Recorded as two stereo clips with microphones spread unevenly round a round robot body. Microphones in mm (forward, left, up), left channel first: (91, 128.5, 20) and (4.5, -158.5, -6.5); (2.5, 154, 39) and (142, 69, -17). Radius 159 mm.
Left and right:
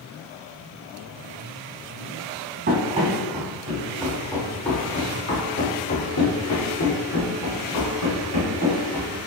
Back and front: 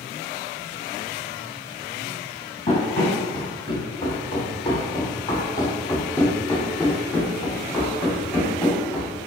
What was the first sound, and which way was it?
Running footsteps, 170° right.